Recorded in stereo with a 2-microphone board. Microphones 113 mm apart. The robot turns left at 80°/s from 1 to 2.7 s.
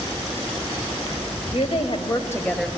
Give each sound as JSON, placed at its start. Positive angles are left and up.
{"t": 1.5, "sound": "a woman speaking", "azimuth_deg": 90, "distance_m": 1.9}